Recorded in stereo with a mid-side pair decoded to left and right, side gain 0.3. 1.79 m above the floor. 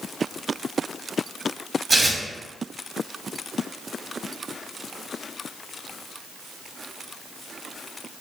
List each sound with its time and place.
1.9 s tearing paper: 40° right, 0.8 m